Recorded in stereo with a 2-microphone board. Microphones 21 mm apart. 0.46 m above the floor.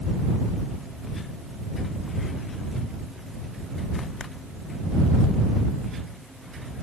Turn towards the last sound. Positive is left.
No sound to turn to.